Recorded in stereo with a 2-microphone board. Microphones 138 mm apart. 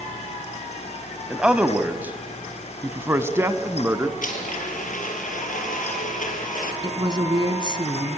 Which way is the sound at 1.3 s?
5° right (ahead or behind).